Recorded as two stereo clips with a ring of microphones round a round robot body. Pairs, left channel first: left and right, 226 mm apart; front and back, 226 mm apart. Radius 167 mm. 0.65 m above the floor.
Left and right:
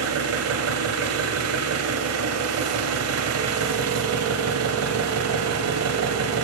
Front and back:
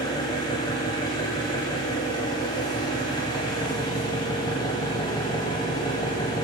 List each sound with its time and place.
0.0 s an engine running: 75° right, 1.1 m